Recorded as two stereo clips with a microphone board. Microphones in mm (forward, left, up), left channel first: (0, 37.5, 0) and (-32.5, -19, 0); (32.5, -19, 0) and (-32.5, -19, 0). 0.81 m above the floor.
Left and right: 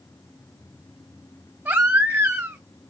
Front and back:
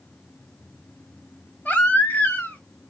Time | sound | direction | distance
1.6 | a baby crying | 65° right | 1.8 m